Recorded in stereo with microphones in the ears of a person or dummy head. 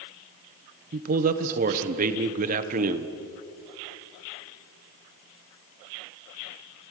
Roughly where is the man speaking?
Right.